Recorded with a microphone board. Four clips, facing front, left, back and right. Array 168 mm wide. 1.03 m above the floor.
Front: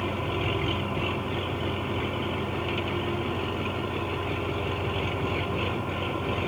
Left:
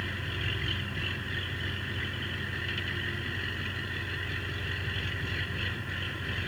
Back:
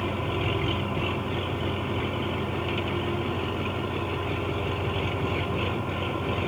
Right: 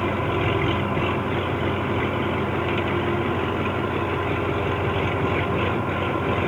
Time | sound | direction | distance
0.0 | an engine running | 90° right | ?